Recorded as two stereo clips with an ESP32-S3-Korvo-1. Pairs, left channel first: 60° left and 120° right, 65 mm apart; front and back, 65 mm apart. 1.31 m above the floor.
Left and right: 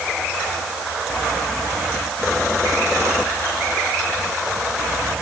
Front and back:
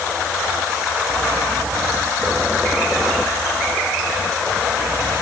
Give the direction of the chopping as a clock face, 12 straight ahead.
I don't hear chopping.